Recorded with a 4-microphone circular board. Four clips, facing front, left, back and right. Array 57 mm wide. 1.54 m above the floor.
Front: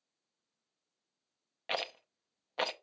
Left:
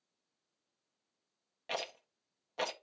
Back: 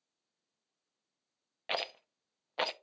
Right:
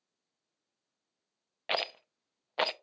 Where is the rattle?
90° right, 0.6 m.